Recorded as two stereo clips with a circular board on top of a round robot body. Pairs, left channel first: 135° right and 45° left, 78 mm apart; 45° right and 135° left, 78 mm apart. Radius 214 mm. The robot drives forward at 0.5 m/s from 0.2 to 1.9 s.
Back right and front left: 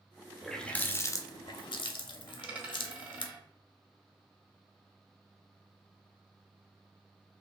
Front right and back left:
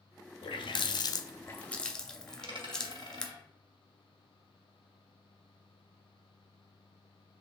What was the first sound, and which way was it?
A running tap, 50° right.